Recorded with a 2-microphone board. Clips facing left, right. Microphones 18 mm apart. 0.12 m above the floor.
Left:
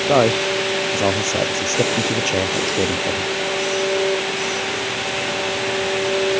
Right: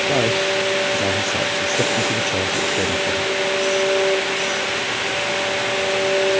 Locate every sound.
0.1 s a man speaking: 45° left (ahead or behind); by 3.3 s 25° left (ahead or behind)